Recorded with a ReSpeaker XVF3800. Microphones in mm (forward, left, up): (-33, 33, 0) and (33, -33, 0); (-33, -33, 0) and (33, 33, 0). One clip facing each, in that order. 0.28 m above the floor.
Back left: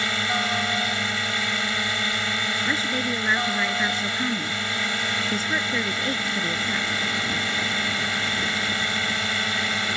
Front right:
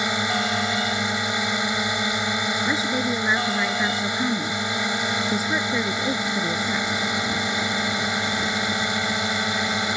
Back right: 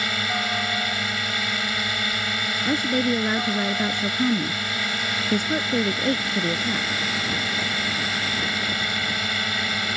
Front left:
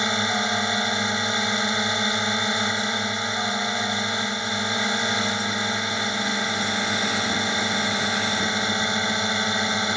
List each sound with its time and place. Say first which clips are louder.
0.0 s a drone: front right 2 dB, front left 3 dB; 5° left
2.6 s a woman speaking: front right 2 dB, back right 4 dB; 125° right